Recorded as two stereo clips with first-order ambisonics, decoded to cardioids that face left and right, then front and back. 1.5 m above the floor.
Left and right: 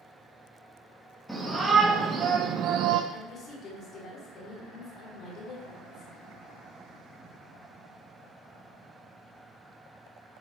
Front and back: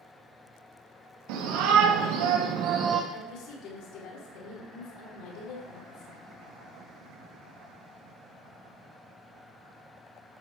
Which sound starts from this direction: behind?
A shout, at 1.3 s.